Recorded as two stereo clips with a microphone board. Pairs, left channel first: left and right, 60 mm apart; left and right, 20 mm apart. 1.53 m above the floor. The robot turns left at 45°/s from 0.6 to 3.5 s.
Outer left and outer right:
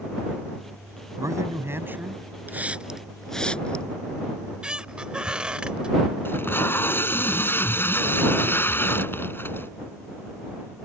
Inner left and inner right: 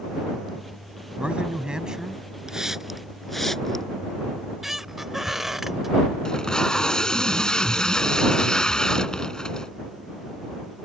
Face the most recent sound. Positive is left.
turn(degrees=35)  # may be behind; listen again after turning